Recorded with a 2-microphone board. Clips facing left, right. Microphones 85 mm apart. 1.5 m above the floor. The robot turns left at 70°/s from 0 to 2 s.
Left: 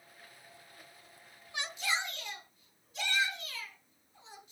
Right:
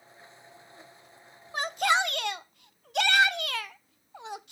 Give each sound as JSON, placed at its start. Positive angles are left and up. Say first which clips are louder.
{"t": 1.5, "sound": "a shout", "louder": "right 10 dB", "azimuth_deg": -40, "distance_m": 0.6}